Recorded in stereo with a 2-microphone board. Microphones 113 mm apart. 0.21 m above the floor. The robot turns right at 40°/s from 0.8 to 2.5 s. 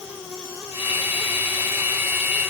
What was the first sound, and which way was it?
Only background noise.